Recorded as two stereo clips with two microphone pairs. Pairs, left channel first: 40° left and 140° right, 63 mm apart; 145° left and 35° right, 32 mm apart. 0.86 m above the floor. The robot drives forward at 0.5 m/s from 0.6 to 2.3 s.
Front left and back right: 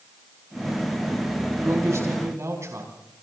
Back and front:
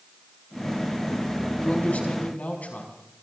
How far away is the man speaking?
About 6 m.